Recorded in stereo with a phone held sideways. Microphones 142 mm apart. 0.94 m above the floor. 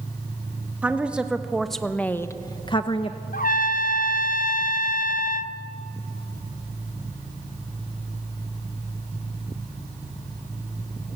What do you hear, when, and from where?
0.8 s a woman speaking: 10° right (ahead or behind), 2 m; by 3.2 s 35° left (ahead or behind), 1.1 m
3.3 s a trumpet: 70° left (ahead or behind), 0.8 m